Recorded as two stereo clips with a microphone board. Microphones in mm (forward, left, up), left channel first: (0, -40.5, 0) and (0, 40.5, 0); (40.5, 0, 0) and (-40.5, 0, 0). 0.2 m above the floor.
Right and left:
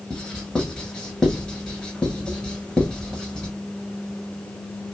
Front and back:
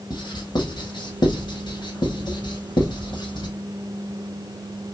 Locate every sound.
0.1 s writing: 10° right, 1.0 m